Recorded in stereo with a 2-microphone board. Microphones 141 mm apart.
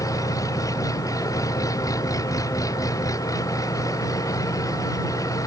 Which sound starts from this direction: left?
An engine running, at 0.0 s.